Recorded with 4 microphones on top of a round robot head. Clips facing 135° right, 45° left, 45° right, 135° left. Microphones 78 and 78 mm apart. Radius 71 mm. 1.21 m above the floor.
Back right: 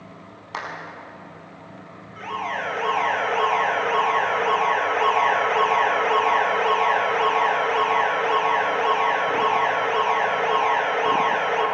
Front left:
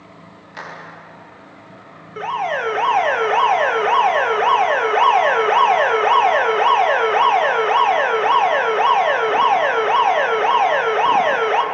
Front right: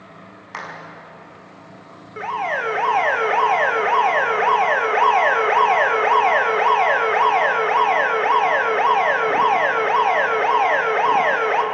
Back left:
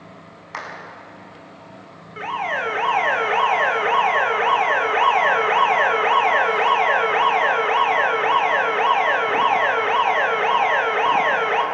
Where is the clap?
135° right, 7 m.